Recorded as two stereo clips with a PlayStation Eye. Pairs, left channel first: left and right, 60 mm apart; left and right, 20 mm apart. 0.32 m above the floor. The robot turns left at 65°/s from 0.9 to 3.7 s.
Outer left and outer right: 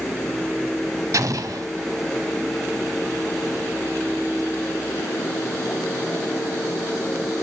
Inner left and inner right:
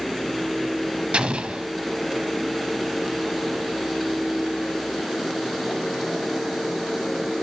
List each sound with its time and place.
1.1 s an explosion: 70° right, 0.7 m; by 1.7 s 105° right, 0.7 m